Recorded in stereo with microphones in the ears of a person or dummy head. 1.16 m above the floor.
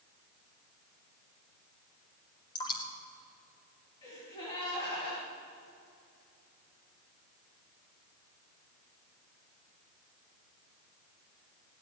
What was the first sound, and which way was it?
Dripping, 25° left (ahead or behind).